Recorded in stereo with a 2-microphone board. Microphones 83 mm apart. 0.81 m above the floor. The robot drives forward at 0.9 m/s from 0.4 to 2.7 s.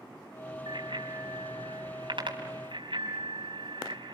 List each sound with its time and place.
0.7 s a bicycle bell: 70° right (ahead or behind), 4.5 m; by 4.2 s 85° right, 4 m